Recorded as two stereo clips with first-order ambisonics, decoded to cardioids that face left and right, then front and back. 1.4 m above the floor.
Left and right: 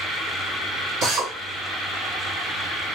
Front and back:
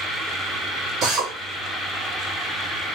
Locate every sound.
1.0 s a drill: 130° right, 3 m